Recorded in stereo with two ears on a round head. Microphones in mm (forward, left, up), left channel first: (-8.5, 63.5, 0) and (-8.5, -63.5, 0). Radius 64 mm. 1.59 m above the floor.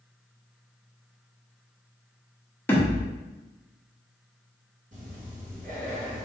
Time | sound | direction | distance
2.7 | a thud | 15° left (ahead or behind) | 1.1 m
4.9 | breathing | 60° right (ahead or behind) | 1.9 m